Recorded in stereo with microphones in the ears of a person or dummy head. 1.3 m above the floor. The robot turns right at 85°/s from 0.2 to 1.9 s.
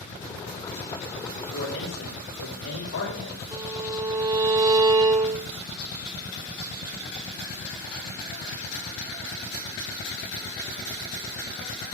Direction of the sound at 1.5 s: 55° left.